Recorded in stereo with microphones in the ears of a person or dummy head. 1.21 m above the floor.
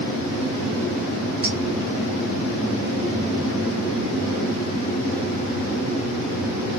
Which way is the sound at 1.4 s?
Centre (ahead or behind).